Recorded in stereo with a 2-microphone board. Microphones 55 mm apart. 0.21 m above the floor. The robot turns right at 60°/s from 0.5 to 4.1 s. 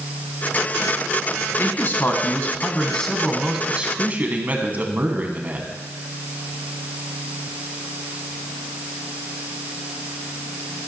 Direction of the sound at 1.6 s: 80° left.